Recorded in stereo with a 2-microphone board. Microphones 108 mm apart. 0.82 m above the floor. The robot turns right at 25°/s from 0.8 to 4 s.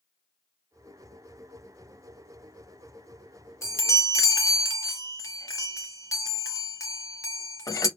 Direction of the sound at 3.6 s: 25° left (ahead or behind).